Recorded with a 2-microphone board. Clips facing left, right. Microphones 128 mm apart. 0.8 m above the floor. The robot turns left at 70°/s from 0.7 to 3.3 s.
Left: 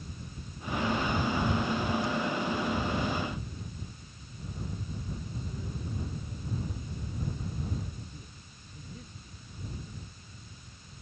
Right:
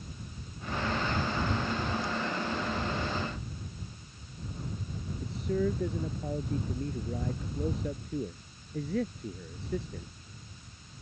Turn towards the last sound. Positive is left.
turn(degrees=-85)